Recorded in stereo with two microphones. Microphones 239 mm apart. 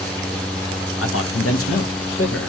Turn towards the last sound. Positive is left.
turn(degrees=65)  # may be behind; listen again after turning